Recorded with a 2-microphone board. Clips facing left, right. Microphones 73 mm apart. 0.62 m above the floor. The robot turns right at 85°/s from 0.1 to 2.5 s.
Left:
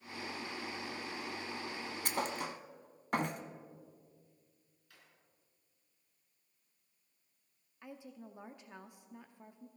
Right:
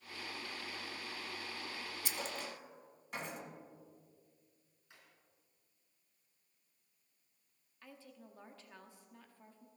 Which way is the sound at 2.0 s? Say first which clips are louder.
Left 7 dB; 55° left (ahead or behind).